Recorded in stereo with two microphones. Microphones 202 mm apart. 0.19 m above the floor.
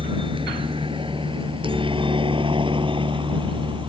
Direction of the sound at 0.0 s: 25° right (ahead or behind).